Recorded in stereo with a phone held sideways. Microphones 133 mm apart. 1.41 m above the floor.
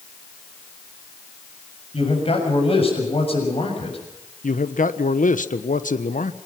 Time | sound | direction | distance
1.9 | a man speaking | 45° left (ahead or behind) | 7 m
4.4 | a man speaking | 75° left (ahead or behind) | 1.2 m